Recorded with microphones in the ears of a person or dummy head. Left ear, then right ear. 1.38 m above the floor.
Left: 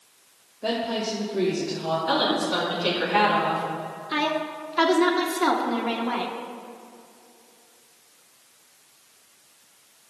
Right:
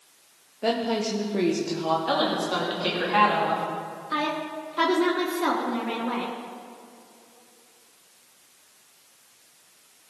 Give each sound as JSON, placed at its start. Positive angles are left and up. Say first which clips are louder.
{"t": 0.6, "sound": "a woman speaking", "louder": "right 1 dB", "side_deg": -65, "distance_m": 1.0}
{"t": 2.1, "sound": "a woman speaking", "louder": "left 1 dB", "side_deg": -20, "distance_m": 3.0}
{"t": 4.1, "sound": "a woman speaking", "louder": "left 2 dB", "side_deg": 10, "distance_m": 1.3}